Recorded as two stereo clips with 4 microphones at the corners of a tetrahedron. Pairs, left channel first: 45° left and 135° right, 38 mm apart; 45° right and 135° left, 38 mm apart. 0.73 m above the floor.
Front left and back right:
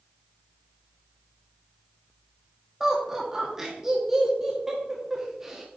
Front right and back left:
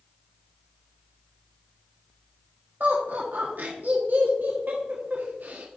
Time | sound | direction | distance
2.8 | laughter | 150° left | 1.2 m